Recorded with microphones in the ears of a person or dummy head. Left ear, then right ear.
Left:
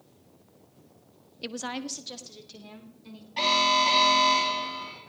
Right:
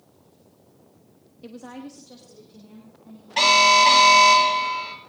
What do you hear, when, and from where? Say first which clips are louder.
1.4 s a woman speaking: left 5 dB; 50° left (ahead or behind), 0.5 m; by 3.3 s 80° left, 3 m
3.4 s an alarm: right 8 dB; 55° right (ahead or behind), 3 m